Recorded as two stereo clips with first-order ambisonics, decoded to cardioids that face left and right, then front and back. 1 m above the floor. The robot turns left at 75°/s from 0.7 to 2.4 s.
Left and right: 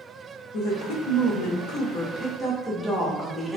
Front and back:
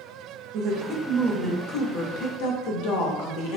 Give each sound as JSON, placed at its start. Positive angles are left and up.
{"t": 0.5, "sound": "a woman speaking", "azimuth_deg": 130, "distance_m": 0.6}